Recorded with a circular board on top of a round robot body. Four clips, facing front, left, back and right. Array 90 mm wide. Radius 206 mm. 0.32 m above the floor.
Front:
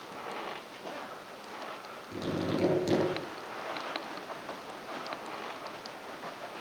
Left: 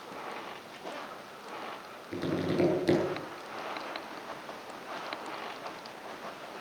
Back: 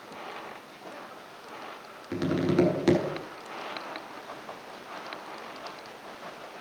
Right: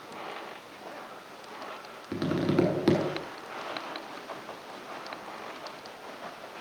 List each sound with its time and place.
2.1 s tapping: 135° right, 7 m